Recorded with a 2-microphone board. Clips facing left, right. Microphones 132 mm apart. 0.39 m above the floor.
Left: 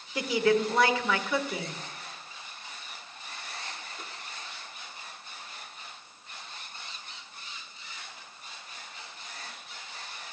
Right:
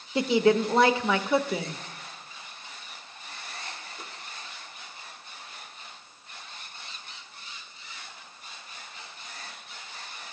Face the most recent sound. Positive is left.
turn(degrees=-30)  # may be behind; listen again after turning